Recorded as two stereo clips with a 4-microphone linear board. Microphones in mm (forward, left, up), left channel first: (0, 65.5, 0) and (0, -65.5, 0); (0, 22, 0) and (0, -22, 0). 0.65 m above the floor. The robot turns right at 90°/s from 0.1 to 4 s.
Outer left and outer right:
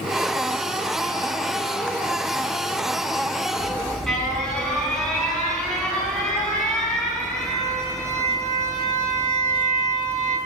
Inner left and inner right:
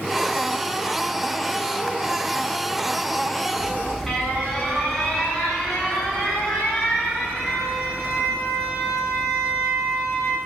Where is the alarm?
35° right, 8 m; by 10.4 s 5° left, 8 m.